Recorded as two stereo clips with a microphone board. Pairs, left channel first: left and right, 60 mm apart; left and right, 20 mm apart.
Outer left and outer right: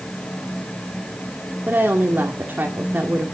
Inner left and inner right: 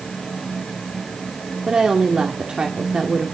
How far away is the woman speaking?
About 2 m.